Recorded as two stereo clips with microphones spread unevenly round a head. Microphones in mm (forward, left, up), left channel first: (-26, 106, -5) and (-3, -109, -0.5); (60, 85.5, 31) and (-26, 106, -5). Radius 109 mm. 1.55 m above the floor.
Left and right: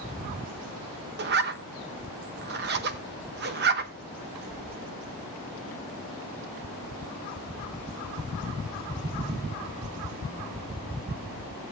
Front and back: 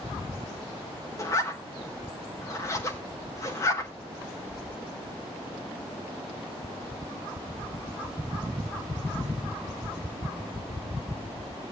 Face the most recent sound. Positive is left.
turn(degrees=-55)